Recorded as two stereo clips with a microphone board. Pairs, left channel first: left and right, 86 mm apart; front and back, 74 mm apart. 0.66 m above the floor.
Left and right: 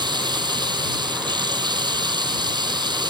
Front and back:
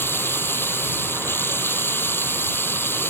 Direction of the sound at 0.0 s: 60° right.